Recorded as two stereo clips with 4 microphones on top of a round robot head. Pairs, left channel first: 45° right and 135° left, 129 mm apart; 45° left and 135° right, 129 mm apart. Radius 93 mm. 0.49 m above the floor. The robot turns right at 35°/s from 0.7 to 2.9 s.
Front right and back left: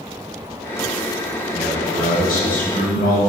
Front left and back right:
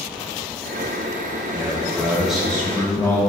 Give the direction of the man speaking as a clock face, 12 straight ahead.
3 o'clock.